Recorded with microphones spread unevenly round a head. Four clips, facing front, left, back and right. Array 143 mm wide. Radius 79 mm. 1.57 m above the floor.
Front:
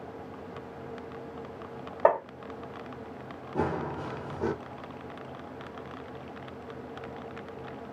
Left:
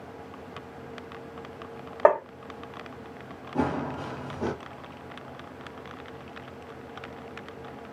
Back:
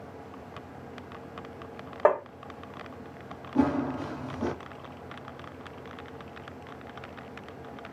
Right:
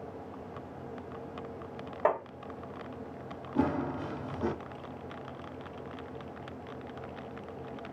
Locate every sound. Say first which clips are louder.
2.0 s tapping: left 9 dB, even; 100° left, 1.6 m
3.5 s running footsteps: left 2 dB, back 5 dB; 55° left, 1.6 m